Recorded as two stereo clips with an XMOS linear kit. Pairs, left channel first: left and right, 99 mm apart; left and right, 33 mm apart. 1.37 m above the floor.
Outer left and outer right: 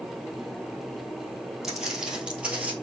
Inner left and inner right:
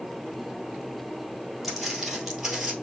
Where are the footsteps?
5° right (ahead or behind), 1.9 m; by 2.7 s 15° right (ahead or behind), 1.5 m.